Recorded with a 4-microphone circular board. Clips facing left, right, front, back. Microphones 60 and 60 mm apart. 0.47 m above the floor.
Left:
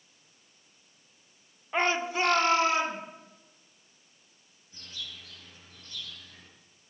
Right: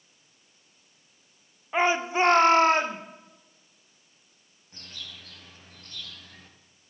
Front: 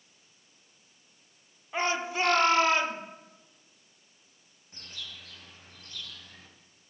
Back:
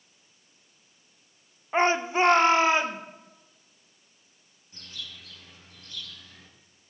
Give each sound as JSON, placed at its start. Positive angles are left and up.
{"t": 1.7, "sound": "a shout", "azimuth_deg": -170, "distance_m": 0.9}
{"t": 4.7, "sound": "a bird", "azimuth_deg": -55, "distance_m": 3.0}